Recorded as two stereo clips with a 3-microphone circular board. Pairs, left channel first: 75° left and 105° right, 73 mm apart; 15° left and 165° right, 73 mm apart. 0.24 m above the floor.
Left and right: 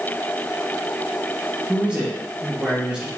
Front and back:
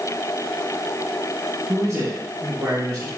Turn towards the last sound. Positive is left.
turn(degrees=-175)